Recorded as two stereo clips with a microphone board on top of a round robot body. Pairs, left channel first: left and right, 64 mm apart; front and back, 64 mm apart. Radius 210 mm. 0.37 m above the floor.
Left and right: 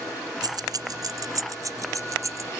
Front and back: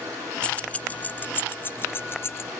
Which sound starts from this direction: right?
Keys jangling, at 0.4 s.